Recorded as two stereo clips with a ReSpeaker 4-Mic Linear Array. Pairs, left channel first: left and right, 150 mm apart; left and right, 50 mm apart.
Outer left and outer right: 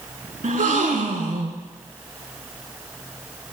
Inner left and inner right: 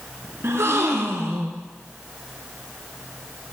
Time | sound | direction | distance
0.4 | a gasp | 65° right (ahead or behind) | 0.5 m